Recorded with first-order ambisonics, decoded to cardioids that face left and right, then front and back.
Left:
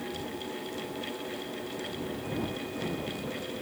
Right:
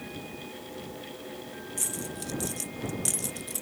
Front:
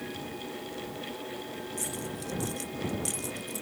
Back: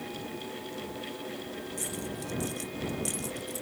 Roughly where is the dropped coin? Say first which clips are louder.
Right 1 dB, even; right.